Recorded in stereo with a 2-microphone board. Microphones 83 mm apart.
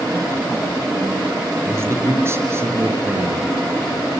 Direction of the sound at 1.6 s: 30° right (ahead or behind).